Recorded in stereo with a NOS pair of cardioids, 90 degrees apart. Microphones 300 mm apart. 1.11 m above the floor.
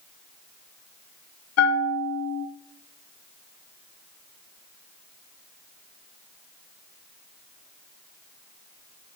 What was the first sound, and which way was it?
A bell, 60° left.